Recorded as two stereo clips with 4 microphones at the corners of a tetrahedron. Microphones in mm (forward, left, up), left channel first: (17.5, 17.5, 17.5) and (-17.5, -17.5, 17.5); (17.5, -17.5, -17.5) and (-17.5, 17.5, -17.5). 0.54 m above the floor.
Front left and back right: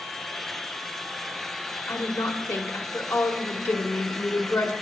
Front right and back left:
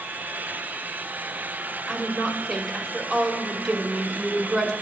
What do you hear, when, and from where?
1.9 s a woman speaking: 40° left, 1.6 m